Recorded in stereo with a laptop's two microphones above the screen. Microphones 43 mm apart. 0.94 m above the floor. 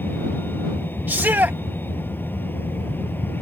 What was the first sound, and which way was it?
A vehicle, 55° left (ahead or behind).